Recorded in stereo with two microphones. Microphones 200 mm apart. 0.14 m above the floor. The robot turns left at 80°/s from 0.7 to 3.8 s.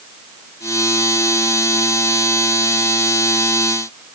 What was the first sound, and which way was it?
Only background noise.